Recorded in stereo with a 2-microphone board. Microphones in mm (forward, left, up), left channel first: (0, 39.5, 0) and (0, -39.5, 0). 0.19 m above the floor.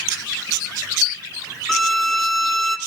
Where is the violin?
5° left (ahead or behind), 0.7 m.